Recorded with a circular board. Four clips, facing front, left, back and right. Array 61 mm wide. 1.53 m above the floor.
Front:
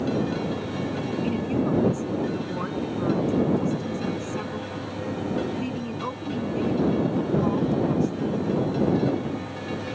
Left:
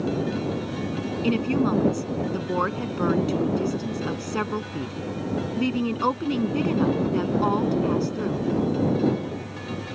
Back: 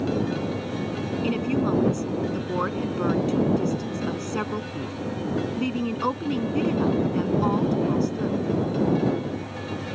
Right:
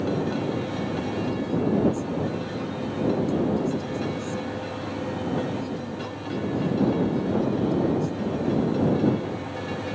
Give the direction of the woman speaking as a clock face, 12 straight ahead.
8 o'clock.